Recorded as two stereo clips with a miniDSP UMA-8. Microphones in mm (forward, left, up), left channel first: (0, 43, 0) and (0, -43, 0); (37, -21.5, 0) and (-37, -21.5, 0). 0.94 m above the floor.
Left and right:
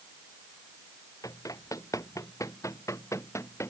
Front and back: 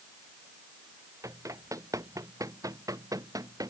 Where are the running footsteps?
135° left; by 3.7 s 145° left.